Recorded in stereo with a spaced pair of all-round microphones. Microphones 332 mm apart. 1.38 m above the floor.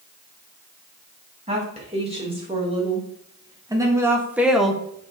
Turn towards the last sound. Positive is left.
turn(degrees=10)  # may be behind; listen again after turning